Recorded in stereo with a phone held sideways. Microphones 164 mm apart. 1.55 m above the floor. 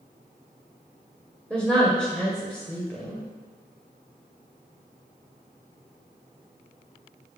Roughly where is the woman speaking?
Centre.